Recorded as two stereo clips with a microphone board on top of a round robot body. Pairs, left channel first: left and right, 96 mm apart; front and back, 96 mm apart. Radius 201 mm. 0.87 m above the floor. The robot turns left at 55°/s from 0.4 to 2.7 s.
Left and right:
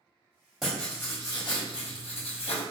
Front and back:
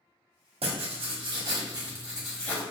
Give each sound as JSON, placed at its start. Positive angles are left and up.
{"t": 0.6, "sound": "writing", "azimuth_deg": -175, "distance_m": 1.2}